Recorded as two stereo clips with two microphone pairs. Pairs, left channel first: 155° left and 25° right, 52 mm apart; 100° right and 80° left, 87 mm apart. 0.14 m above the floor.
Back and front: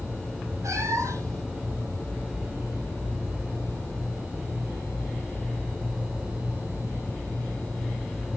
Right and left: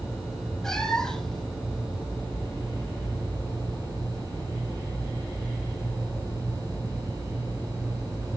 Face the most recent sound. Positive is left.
turn(degrees=-20)